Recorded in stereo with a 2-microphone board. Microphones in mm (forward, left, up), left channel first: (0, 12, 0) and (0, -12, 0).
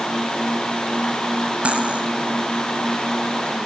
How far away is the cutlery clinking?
About 3 m.